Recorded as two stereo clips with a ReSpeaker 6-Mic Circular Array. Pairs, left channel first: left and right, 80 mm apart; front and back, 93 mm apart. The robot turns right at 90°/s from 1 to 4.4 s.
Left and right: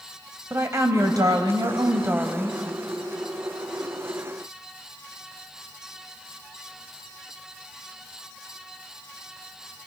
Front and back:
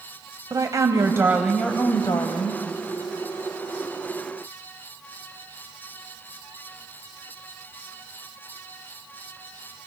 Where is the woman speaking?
135° right, 2 m; by 2.6 s 10° left, 2 m.